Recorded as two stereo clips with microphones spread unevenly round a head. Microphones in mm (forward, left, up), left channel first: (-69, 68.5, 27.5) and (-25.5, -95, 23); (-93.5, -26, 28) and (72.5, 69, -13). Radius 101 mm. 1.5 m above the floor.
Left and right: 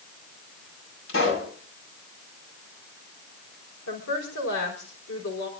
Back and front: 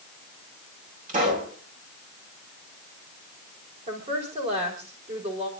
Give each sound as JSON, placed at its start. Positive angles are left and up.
{"t": 1.1, "sound": "a pop", "azimuth_deg": 80, "distance_m": 7.0}
{"t": 3.9, "sound": "a woman speaking", "azimuth_deg": 90, "distance_m": 5.5}